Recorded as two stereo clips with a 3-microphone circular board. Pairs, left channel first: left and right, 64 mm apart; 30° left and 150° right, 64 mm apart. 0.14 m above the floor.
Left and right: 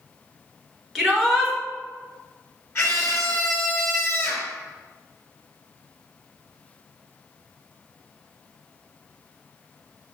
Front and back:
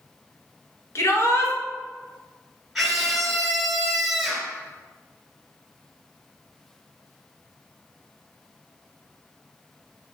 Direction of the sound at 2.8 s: 120° left.